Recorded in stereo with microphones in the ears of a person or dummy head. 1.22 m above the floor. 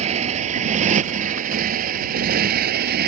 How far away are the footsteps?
I don't hear footsteps.